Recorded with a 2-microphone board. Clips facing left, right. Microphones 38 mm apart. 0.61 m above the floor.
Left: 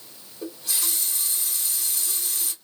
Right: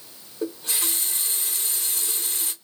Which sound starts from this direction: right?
A running tap, at 0.4 s.